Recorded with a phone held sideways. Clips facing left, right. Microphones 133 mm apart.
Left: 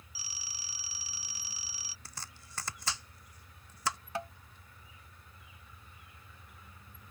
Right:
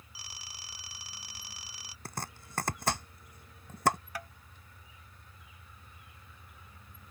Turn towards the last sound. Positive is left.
turn(degrees=25)  # may be behind; listen again after turning